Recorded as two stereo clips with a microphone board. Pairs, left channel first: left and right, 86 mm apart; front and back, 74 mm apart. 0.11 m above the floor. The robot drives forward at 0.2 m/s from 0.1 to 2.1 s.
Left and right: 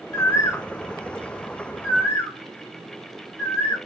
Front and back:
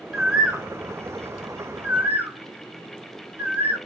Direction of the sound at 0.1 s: 100° left.